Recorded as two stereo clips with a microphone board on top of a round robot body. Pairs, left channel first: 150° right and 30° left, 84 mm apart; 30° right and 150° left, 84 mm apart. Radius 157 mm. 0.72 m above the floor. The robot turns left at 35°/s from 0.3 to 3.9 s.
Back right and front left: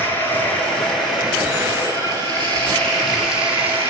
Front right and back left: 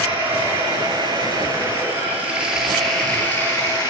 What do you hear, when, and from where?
0.0 s running water: 145° left, 8.5 m; by 3.9 s 20° left, 8.5 m